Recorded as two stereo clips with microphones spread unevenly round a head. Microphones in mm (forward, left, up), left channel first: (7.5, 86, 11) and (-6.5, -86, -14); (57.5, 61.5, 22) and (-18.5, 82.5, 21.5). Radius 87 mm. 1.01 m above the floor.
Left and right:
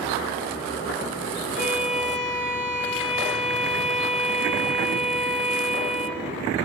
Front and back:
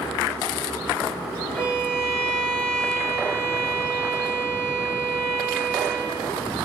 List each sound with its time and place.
1.5 s a violin: 45° right, 3.5 m